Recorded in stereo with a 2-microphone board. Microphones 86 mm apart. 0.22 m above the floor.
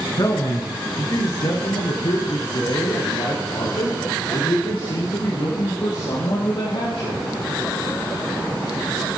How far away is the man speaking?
About 2 m.